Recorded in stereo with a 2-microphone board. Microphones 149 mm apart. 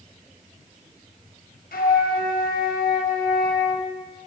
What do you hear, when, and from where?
1.7 s a flute: 80° left, 1.1 m